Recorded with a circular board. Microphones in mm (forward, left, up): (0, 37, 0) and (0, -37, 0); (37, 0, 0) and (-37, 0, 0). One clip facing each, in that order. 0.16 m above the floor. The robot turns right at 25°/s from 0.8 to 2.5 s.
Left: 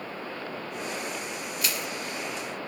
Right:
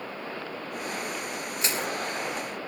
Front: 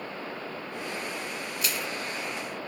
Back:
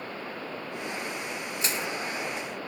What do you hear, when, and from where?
1.6 s crushing: 135° right, 0.8 m; by 1.9 s 130° right, 0.8 m